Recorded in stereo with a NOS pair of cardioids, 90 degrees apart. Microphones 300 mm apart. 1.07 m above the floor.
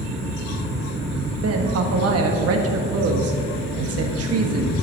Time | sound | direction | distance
1.4 | a woman speaking | 55° right | 1.3 m